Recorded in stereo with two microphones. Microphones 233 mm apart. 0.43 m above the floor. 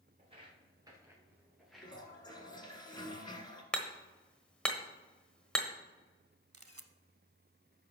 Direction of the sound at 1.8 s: 20° left (ahead or behind).